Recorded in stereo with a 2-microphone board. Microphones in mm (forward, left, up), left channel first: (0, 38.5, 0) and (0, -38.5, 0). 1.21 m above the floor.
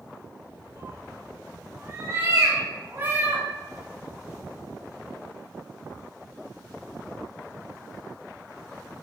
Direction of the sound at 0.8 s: 35° right (ahead or behind).